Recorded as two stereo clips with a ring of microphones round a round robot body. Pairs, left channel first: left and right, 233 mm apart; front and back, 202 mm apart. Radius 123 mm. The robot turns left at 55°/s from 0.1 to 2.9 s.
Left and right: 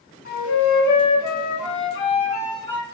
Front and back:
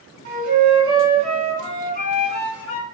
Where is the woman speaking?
I don't hear a woman speaking.